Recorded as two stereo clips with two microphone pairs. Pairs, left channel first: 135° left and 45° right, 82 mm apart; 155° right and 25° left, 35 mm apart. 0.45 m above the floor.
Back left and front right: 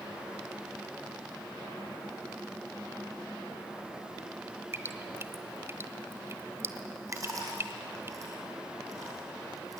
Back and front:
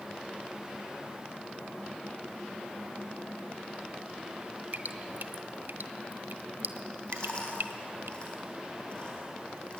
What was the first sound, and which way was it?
Dripping, 10° left.